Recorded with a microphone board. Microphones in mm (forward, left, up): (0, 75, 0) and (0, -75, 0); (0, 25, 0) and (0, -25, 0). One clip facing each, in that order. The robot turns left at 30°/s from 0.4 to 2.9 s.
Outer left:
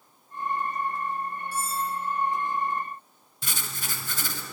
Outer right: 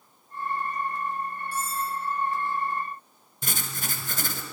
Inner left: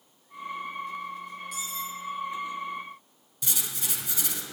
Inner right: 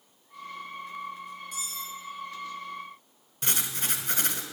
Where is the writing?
50° right (ahead or behind), 1.1 m.